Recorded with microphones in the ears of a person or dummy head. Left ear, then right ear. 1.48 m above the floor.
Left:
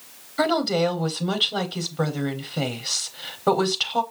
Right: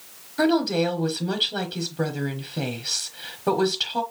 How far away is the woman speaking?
About 0.7 m.